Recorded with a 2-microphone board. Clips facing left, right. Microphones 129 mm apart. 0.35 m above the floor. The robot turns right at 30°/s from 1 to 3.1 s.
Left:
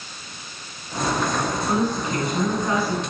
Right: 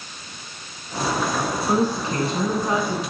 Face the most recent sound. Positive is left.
turn(degrees=-20)